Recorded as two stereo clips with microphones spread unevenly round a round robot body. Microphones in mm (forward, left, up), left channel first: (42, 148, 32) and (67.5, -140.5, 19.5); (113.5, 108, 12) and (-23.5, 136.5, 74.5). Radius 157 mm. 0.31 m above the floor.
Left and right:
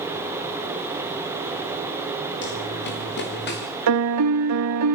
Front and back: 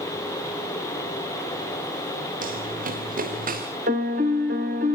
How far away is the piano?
About 0.6 m.